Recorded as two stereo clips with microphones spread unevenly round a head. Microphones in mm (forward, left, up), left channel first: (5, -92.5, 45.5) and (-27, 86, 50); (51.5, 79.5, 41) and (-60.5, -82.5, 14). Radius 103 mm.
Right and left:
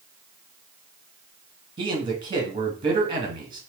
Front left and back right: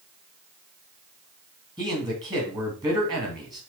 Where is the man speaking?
165° left, 1.8 m.